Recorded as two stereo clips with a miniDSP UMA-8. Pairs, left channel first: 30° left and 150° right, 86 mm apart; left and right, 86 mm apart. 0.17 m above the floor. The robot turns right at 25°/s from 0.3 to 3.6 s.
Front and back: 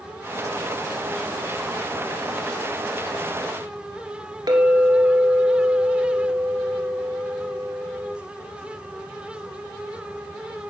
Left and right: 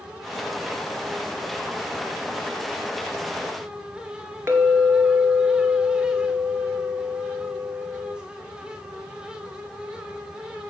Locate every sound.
4.5 s a clink: 145° right, 2 m